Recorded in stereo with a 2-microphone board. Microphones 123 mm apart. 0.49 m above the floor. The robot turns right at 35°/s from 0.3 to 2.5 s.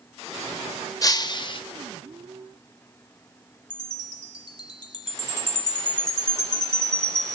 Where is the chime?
35° left (ahead or behind), 1.2 m.